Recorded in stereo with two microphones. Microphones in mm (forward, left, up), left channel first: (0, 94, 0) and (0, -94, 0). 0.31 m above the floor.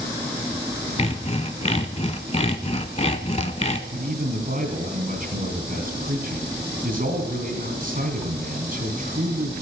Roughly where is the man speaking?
Right.